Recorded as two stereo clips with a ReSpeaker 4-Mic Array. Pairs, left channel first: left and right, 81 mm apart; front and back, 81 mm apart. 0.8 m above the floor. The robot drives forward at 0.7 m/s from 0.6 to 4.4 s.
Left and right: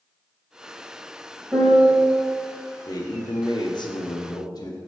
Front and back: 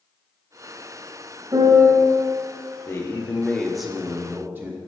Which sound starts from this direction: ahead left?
A man speaking, at 2.9 s.